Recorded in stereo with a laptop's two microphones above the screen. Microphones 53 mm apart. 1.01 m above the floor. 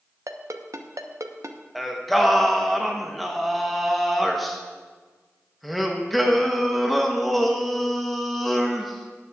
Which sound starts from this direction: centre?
Singing, at 1.8 s.